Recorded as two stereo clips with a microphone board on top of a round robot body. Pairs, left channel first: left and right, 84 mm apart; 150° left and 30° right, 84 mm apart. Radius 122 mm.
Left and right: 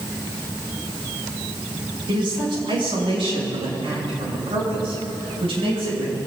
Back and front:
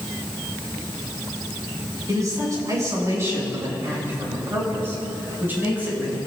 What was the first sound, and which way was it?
A man speaking, 75° right.